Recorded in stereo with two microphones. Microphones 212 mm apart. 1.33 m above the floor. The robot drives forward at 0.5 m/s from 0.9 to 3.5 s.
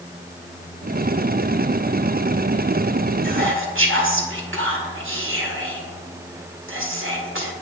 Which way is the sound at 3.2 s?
80° right.